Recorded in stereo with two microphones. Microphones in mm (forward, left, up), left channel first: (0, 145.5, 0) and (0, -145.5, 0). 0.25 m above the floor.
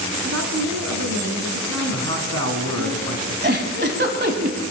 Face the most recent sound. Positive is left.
turn(degrees=-35)  # may be behind; listen again after turning